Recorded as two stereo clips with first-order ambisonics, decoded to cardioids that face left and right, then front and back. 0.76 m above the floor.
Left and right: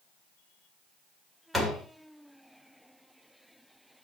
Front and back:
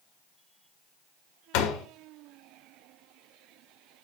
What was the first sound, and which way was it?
A door slam, 5° right.